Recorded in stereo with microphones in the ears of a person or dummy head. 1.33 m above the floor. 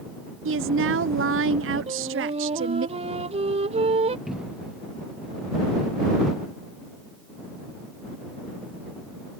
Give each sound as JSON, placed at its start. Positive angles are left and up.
{"t": 0.5, "sound": "a woman speaking", "side_deg": -60}
{"t": 1.9, "sound": "a flute", "side_deg": -35}
{"t": 4.3, "sound": "a cupboard door", "side_deg": -5}